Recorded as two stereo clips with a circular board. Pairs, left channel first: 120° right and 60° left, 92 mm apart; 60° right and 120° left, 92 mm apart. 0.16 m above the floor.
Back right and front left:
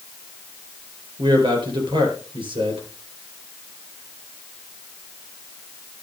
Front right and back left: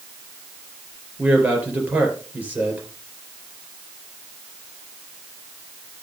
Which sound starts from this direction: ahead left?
A man speaking, at 1.2 s.